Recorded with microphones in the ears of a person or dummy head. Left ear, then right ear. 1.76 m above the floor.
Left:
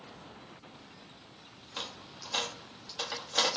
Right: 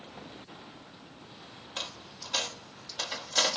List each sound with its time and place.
1.8 s a dropped coin: centre (ahead or behind), 1.5 m